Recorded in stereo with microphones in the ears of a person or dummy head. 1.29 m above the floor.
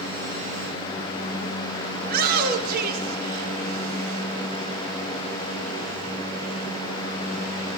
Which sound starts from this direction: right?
A shout, at 2.0 s.